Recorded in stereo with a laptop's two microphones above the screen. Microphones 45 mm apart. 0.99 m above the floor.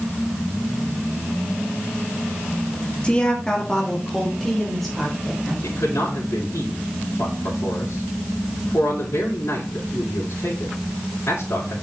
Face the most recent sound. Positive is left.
turn(degrees=75)  # may be behind; listen again after turning